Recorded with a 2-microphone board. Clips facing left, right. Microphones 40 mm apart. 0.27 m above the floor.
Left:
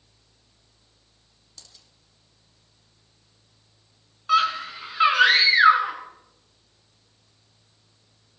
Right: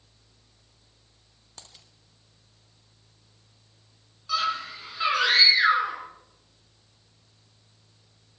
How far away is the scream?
About 3 m.